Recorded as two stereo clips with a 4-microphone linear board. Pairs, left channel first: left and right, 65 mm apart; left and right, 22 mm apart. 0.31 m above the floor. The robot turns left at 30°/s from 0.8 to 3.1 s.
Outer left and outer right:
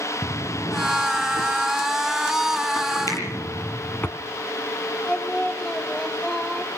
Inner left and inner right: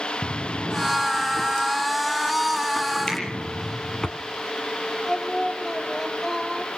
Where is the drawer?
70° left (ahead or behind), 1.6 m; by 4.1 s 30° left (ahead or behind), 1.6 m.